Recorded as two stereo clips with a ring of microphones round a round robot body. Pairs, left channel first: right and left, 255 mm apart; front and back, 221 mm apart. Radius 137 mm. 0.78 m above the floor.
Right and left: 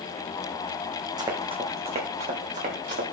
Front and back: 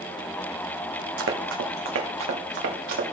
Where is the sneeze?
No sneeze in this recording.